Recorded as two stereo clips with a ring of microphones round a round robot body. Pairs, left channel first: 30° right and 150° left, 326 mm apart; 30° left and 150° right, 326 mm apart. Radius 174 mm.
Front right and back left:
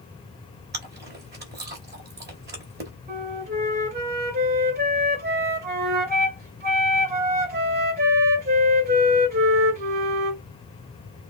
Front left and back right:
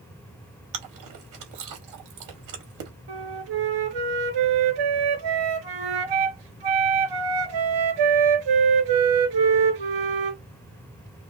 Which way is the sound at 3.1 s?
145° right.